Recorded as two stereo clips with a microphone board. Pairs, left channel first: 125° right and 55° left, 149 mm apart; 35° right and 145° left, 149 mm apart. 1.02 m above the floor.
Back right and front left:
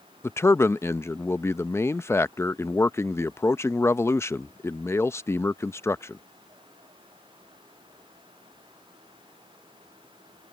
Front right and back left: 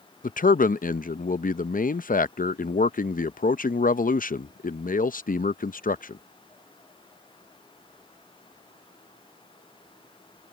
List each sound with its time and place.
0.2 s a man speaking: 55° right